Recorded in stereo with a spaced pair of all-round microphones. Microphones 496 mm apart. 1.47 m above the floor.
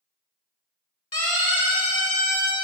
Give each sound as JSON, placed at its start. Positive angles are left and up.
{"t": 1.1, "sound": "a siren", "side_deg": 60, "distance_m": 5.0}